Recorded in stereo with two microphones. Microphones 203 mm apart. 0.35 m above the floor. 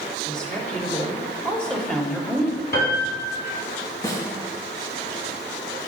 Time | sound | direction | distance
0.3 | a woman speaking | 5° left (ahead or behind) | 1.1 m
2.7 | a piano | 55° left (ahead or behind) | 2.5 m
4.0 | a snare drum | 15° left (ahead or behind) | 1.5 m